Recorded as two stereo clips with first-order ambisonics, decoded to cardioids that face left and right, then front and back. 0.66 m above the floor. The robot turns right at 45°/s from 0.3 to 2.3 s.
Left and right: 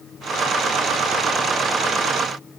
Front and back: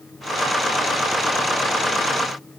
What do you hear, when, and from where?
Only background noise.